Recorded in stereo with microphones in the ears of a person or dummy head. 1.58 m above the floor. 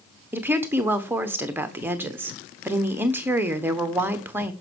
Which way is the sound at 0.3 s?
5° right (ahead or behind).